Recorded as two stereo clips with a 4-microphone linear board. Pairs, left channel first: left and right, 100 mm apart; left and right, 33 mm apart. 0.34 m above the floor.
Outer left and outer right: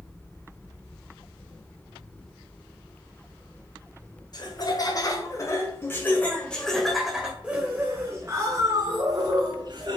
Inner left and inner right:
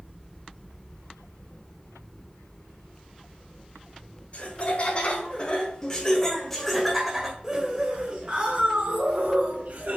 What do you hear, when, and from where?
4.3 s laughter: 45° left (ahead or behind), 2 m; by 10.0 s 50° right (ahead or behind), 2.5 m